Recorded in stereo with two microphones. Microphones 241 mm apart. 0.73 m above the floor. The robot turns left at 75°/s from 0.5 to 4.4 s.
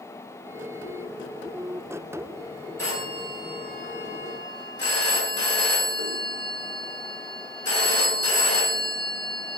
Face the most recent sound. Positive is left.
turn(degrees=75)  # may be behind; listen again after turning